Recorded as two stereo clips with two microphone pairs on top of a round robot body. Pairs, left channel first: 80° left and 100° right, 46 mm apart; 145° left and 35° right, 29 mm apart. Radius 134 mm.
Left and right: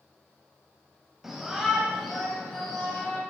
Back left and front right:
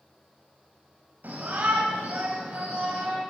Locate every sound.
1.2 s a shout: 15° right, 3.5 m; by 3.2 s straight ahead, 4 m